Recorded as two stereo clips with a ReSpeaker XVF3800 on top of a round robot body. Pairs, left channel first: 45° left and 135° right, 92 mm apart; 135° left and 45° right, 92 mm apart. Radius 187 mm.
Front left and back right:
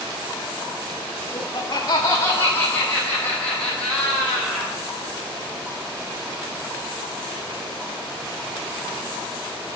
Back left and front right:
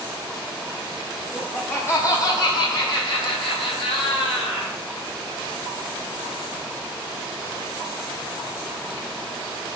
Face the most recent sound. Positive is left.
turn(degrees=135)